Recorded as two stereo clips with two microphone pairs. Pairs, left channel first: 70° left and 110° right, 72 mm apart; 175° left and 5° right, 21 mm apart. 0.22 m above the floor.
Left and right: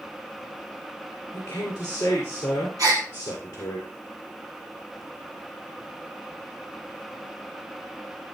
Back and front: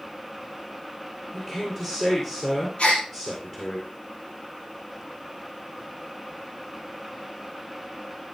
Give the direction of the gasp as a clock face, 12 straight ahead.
5 o'clock.